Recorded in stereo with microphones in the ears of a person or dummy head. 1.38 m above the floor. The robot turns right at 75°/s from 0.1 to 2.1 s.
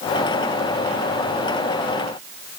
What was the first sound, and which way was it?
Only background noise.